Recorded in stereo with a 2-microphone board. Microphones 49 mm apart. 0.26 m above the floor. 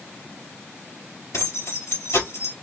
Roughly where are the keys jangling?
Left.